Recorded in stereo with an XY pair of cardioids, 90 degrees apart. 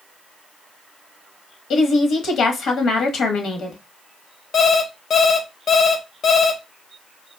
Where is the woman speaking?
70° left, 1.3 m.